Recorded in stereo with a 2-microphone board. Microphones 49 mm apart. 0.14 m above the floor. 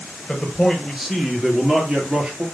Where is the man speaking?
Centre (ahead or behind), 2.5 m; by 2.5 s 25° right (ahead or behind), 3 m.